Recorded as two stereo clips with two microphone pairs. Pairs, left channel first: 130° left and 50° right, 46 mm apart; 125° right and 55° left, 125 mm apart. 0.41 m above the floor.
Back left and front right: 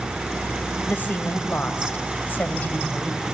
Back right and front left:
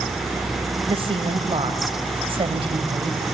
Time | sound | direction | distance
0.9 | a woman speaking | 90° left | 1.9 m